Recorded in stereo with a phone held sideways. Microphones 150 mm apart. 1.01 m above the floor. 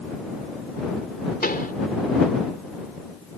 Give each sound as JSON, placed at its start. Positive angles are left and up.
{"t": 1.4, "sound": "a pop", "side_deg": 80}